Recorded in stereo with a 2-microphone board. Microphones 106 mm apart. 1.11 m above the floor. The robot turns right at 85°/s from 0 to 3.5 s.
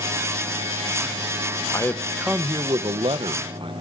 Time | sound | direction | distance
1.7 | a man speaking | 145° left | 0.7 m